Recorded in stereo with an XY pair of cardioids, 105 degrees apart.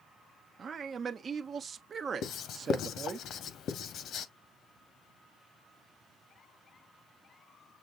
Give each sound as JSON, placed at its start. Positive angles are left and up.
{"t": 0.6, "sound": "a man speaking", "azimuth_deg": -45, "distance_m": 0.9}
{"t": 2.2, "sound": "writing", "azimuth_deg": 70, "distance_m": 0.9}